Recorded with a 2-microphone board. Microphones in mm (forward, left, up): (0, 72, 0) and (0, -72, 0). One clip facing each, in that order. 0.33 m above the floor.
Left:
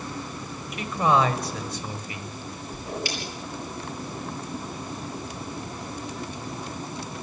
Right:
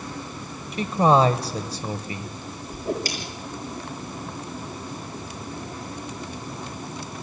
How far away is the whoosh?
About 6.5 m.